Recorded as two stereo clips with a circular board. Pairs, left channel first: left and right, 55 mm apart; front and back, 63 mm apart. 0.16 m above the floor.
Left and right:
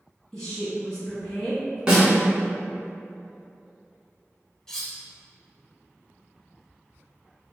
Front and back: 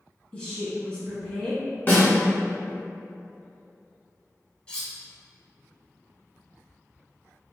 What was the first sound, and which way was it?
A woman speaking, 30° left.